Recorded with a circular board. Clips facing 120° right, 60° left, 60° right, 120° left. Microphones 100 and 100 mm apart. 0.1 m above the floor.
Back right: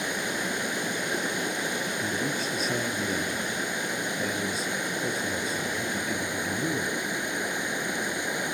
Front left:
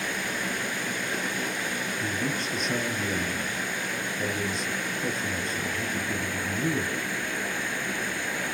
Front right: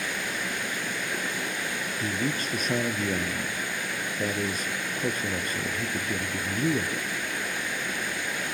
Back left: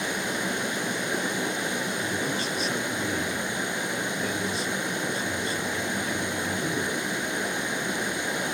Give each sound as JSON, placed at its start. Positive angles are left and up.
{"t": 0.0, "sound": "running water", "azimuth_deg": 180, "distance_m": 1.3}
{"t": 2.0, "sound": "a man speaking", "azimuth_deg": -35, "distance_m": 2.5}